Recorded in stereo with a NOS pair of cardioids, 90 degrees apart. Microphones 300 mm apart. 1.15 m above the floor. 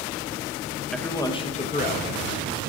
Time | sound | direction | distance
0.9 | a man speaking | straight ahead | 0.9 m